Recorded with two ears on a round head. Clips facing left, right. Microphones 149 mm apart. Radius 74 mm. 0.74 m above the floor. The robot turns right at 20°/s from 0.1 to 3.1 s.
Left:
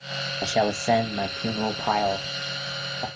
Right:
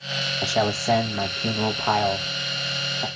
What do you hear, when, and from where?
0.4 s a man speaking: 15° left (ahead or behind), 0.9 m; by 3.1 s centre (ahead or behind), 0.9 m